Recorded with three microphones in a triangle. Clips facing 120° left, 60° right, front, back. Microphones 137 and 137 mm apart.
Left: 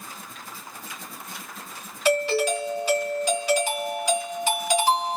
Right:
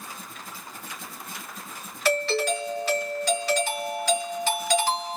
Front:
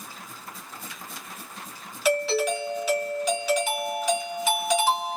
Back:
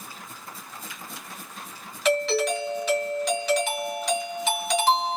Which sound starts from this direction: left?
A doorbell, at 2.0 s.